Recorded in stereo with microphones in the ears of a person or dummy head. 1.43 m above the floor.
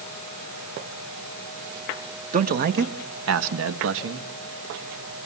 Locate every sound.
2.3 s a man speaking: 40° right (ahead or behind), 1.5 m; by 4.3 s 65° right (ahead or behind), 2 m